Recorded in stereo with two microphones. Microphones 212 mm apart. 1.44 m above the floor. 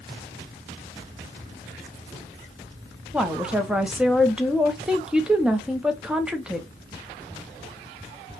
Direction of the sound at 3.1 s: 5° right (ahead or behind).